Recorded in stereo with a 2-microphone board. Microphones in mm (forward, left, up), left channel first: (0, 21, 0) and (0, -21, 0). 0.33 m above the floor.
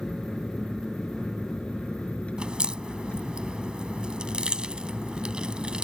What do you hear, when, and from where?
0.0 s an aircraft: 20° left (ahead or behind); by 5.8 s 45° left (ahead or behind)
2.4 s a crack: 25° right (ahead or behind)